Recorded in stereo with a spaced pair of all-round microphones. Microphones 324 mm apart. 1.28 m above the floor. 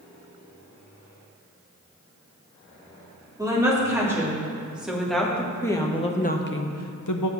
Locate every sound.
3.4 s a woman speaking: 10° right (ahead or behind), 3 m; by 7.3 s 80° left, 0.7 m